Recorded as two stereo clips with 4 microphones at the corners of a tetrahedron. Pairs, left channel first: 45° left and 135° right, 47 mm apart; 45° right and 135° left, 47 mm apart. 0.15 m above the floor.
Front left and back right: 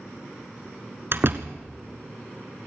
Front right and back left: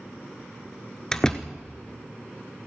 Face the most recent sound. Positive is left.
turn(degrees=-120)